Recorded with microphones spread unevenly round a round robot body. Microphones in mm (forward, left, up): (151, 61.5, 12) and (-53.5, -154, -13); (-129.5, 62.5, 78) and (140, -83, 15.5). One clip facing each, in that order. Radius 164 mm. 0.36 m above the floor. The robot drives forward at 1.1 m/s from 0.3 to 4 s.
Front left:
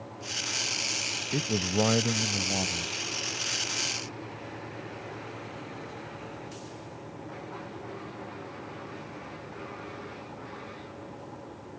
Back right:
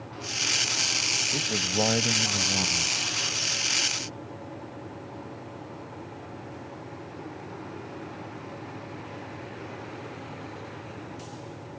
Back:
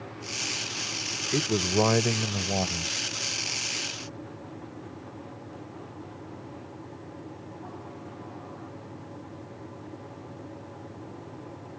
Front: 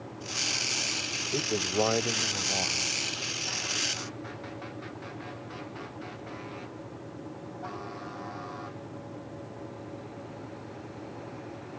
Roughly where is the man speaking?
Left.